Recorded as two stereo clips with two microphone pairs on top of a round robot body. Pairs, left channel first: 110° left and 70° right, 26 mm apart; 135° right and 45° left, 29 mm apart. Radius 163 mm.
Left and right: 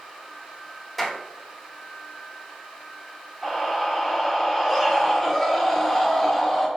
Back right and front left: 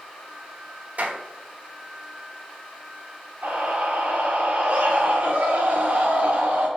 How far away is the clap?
About 1.5 m.